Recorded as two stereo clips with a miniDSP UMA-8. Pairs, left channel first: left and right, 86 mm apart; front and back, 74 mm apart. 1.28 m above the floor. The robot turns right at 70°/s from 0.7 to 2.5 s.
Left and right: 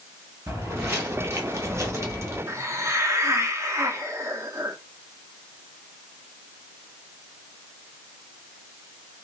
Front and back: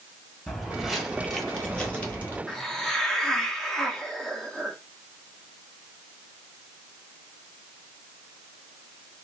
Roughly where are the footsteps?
Right.